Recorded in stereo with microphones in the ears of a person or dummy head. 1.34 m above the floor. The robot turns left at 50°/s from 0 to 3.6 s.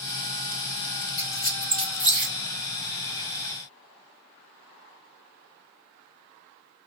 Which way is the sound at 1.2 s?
35° left (ahead or behind).